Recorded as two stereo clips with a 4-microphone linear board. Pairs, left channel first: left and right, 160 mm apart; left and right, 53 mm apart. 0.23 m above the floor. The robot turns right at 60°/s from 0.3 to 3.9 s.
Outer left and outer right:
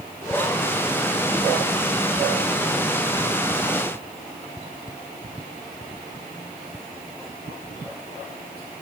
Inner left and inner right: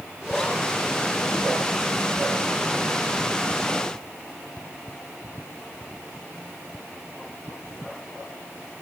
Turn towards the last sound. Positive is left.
No sound to turn to.